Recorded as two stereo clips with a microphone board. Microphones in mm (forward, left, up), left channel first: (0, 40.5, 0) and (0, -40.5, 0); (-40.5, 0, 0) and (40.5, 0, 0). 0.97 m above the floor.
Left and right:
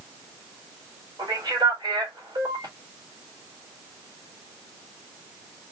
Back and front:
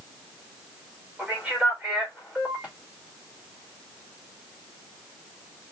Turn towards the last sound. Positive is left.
turn(degrees=-80)